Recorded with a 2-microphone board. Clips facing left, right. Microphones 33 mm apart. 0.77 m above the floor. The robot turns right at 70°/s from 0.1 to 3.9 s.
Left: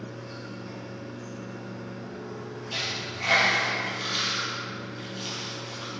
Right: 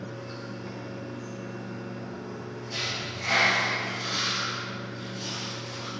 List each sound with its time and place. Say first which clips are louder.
0.0 s running water: right 1 dB; 125° right, 2.5 m; by 6.0 s 140° left, 2.5 m
2.7 s a dropped coin: even; 55° left (ahead or behind), 2.5 m; by 5.9 s 35° left (ahead or behind), 2.5 m